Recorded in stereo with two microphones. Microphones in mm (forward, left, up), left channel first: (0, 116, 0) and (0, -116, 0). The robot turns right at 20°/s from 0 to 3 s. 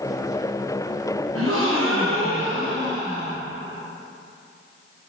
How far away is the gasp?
About 0.6 m.